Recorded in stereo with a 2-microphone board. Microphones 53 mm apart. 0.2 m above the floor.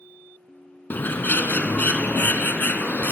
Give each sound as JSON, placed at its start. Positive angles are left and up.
{"t": 0.9, "sound": "a bird", "side_deg": 40, "distance_m": 1.2}